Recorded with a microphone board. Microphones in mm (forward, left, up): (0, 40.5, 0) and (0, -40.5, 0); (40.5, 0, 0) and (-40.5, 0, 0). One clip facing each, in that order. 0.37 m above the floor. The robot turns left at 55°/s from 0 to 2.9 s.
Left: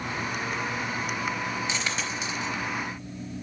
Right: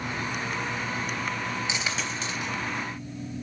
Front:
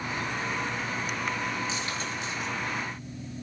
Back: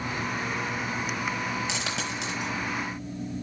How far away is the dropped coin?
About 3.5 m.